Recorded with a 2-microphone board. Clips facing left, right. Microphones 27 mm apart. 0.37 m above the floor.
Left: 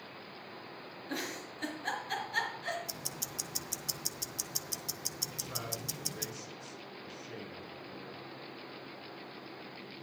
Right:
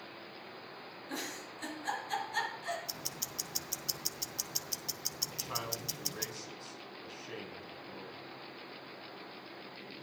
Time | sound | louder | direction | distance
1.1 | a giggle | left 2 dB | 15° left (ahead or behind) | 4.5 m
2.9 | ticking | even | 10° right (ahead or behind) | 0.6 m
5.3 | a man speaking | right 1 dB | 55° right (ahead or behind) | 4 m